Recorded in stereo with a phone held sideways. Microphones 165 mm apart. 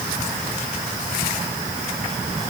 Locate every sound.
Only background noise.